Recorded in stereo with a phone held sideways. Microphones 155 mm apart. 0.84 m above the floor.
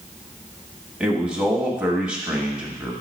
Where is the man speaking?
5° right (ahead or behind), 1.3 m.